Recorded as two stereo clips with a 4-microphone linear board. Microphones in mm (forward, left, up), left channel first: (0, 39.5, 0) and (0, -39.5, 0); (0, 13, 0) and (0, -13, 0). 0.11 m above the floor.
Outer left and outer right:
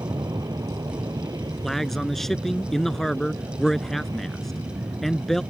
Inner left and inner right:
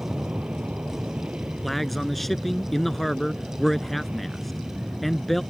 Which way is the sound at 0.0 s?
60° right (ahead or behind).